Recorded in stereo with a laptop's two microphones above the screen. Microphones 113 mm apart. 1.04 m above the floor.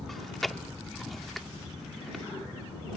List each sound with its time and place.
0.1 s chewing: centre (ahead or behind)